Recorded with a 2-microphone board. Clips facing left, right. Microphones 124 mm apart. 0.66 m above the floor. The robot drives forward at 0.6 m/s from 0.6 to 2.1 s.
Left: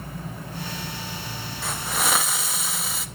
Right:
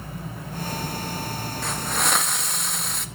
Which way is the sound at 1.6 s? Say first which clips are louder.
Even; centre (ahead or behind).